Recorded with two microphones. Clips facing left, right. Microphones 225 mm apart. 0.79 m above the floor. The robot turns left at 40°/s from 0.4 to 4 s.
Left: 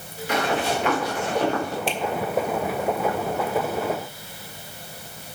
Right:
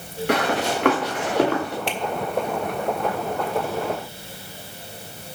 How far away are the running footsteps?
About 5 m.